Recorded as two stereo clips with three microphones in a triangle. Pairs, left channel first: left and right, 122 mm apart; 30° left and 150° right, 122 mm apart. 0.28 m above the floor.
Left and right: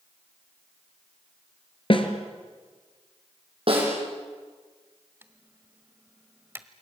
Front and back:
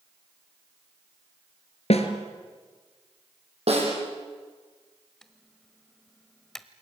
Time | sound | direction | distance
1.9 | a snare drum | 55° left | 2.5 m
3.7 | a snare drum | 125° right | 7 m
5.2 | typing on a keyboard | 50° right | 1.2 m